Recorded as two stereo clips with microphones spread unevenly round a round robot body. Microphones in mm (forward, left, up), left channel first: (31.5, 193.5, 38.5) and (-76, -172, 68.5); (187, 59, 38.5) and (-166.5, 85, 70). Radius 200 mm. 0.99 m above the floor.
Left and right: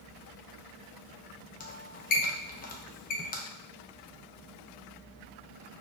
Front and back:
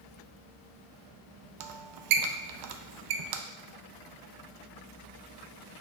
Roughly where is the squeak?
Behind left.